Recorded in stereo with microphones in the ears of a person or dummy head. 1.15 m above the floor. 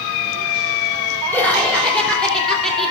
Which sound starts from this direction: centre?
Laughter, at 1.3 s.